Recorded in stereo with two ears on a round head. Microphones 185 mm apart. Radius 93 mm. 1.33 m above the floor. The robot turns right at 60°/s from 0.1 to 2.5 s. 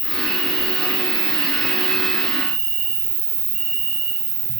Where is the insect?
Straight behind, 2.5 m; by 4.6 s 35° right, 2.5 m.